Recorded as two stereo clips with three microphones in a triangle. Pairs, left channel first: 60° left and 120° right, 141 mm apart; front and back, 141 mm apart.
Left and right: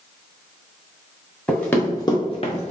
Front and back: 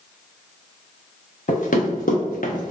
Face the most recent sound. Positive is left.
turn(degrees=25)